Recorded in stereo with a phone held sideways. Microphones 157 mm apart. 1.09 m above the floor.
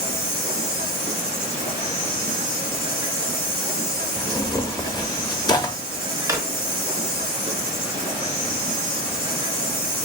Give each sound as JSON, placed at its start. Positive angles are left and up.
{"t": 0.0, "sound": "an insect", "side_deg": -45, "distance_m": 1.4}
{"t": 4.2, "sound": "tearing paper", "side_deg": 25, "distance_m": 0.8}
{"t": 6.3, "sound": "a drawer", "side_deg": -20, "distance_m": 0.9}